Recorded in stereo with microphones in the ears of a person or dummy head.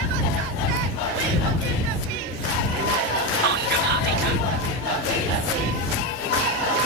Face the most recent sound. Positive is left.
turn(degrees=-55)  # may be behind; listen again after turning